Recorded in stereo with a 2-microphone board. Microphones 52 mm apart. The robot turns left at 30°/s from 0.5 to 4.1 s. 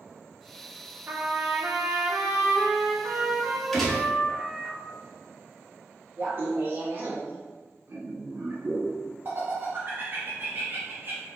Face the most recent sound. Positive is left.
turn(degrees=-45)  # may be behind; listen again after turning